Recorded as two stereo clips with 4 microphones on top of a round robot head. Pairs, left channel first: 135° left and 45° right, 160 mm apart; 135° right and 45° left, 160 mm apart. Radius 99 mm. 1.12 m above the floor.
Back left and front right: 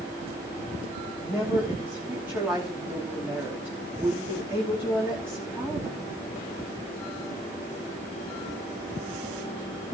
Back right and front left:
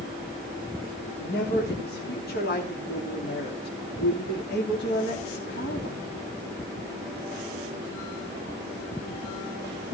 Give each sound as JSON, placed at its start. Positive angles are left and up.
{"t": 1.2, "sound": "a woman speaking", "azimuth_deg": -120, "distance_m": 3.0}